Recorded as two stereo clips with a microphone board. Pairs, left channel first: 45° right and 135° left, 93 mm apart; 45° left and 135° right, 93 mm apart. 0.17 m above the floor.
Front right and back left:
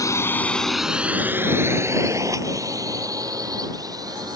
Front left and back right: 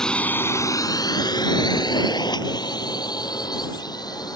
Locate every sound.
0.0 s a drone: 35° right; by 4.4 s 90° left